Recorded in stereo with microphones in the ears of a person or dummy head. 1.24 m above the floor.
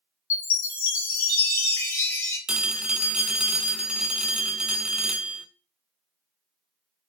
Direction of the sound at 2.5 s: 5° right (ahead or behind).